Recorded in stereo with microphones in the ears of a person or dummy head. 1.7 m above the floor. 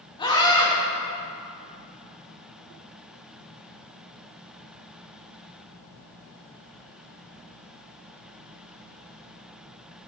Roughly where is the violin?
I don't hear a violin.